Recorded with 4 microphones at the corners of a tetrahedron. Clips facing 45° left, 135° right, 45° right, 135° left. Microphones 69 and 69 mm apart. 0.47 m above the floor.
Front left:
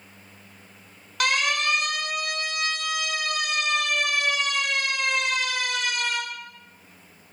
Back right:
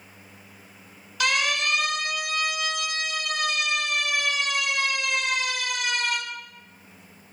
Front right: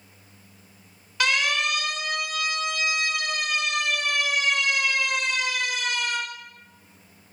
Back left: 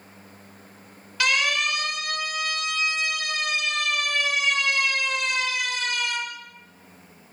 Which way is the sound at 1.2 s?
20° left.